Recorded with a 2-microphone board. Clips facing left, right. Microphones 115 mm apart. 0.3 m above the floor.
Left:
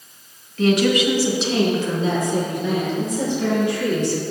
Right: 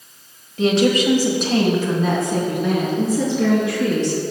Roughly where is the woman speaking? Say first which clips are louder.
Right 1 dB; right.